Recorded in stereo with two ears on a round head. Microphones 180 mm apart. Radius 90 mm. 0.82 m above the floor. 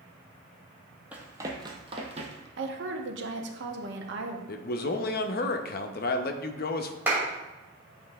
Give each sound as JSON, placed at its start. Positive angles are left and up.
{"t": 1.1, "sound": "running footsteps", "side_deg": -10, "distance_m": 1.1}
{"t": 2.6, "sound": "a woman speaking", "side_deg": -60, "distance_m": 0.9}
{"t": 4.5, "sound": "a man speaking", "side_deg": 50, "distance_m": 0.6}
{"t": 7.1, "sound": "a clap", "side_deg": -10, "distance_m": 2.5}